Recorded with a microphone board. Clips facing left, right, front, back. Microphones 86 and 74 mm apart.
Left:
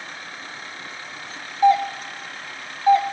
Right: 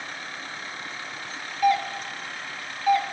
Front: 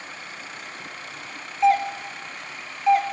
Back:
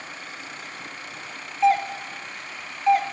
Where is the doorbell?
90° left, 0.6 m.